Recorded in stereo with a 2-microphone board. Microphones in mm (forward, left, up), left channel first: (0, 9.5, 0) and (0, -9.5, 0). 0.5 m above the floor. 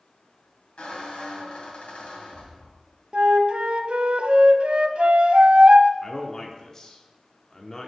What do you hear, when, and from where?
0.8 s a squeak: 75° left (ahead or behind), 2 m
3.1 s a flute: 75° right (ahead or behind), 0.6 m
6.0 s a man speaking: 25° left (ahead or behind), 0.8 m